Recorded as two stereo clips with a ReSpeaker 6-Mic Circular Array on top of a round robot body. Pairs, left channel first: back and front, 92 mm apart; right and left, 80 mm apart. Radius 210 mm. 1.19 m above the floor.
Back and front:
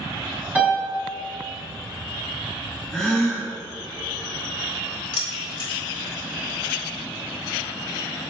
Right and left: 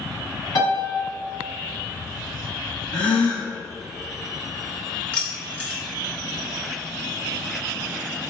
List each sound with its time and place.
0.6 s a piano: 70° right, 2.5 m
2.9 s a gasp: 105° right, 0.8 m
5.1 s keys jangling: 160° right, 2.5 m